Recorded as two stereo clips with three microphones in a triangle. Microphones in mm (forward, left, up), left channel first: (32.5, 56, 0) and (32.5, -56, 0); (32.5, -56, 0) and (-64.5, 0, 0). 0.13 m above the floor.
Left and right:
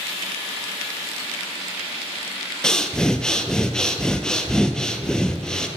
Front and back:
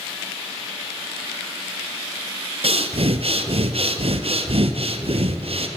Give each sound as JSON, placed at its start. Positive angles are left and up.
{"t": 2.6, "sound": "breathing", "azimuth_deg": 175, "distance_m": 0.7}